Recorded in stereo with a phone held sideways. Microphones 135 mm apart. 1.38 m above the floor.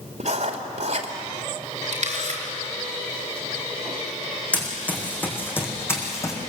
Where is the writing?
60° right (ahead or behind), 2.5 m.